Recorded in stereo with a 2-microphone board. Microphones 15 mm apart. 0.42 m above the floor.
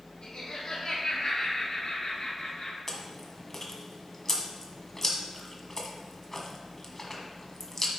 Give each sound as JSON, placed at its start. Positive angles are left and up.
{"t": 0.2, "sound": "laughter", "side_deg": 65, "distance_m": 3.5}
{"t": 2.9, "sound": "chewing", "side_deg": 25, "distance_m": 1.4}